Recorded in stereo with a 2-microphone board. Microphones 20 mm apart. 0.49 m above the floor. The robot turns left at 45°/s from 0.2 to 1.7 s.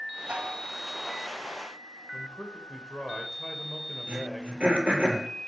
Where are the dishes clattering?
75° right (ahead or behind), 1.9 m; by 0.7 s 65° right (ahead or behind), 1.9 m.